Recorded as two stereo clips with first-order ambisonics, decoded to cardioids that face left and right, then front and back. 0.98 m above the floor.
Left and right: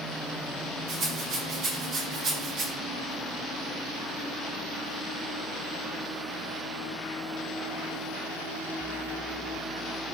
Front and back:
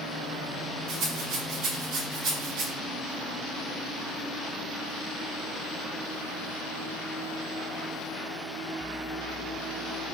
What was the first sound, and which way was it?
A rattle, 145° right.